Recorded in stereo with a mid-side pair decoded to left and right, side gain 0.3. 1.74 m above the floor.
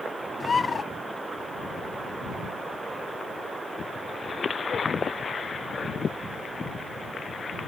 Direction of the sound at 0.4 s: 45° left.